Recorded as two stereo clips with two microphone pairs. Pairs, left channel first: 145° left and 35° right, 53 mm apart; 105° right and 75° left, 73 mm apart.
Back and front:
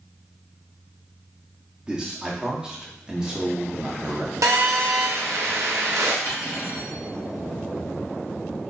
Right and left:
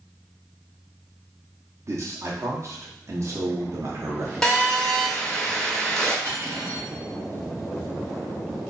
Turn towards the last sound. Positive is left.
turn(degrees=120)